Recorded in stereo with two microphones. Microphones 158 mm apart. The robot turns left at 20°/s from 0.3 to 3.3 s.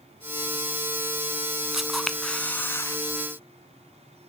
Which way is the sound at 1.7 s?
5° right (ahead or behind).